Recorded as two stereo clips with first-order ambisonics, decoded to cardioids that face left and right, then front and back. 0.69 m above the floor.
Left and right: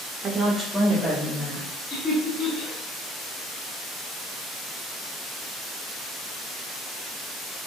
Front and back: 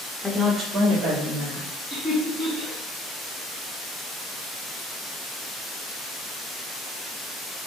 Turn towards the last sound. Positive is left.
turn(degrees=110)